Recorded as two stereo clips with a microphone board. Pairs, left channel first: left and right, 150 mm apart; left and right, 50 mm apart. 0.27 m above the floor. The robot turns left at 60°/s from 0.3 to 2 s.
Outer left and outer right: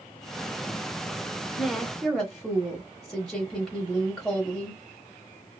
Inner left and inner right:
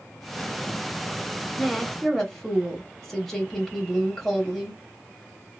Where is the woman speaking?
5° right (ahead or behind), 0.9 m; by 4.8 s 5° left (ahead or behind), 0.9 m.